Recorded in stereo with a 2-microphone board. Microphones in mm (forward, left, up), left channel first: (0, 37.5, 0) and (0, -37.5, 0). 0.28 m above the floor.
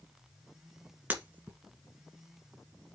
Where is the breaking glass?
20° right (ahead or behind), 1.9 m.